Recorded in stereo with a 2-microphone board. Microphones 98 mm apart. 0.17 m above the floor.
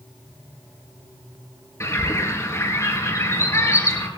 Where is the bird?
30° left (ahead or behind), 2.5 m.